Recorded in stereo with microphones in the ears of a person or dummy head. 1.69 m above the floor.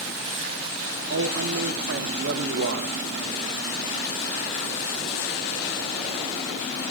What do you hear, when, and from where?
1.1 s a man speaking: 65° right (ahead or behind), 1.4 m